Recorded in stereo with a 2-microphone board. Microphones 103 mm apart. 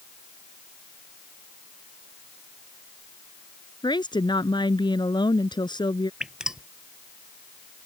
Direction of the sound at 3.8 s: 45° left (ahead or behind).